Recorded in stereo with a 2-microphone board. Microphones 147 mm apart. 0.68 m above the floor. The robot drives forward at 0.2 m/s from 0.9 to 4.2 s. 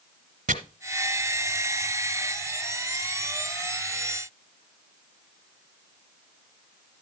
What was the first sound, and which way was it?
Chopping, 70° right (ahead or behind).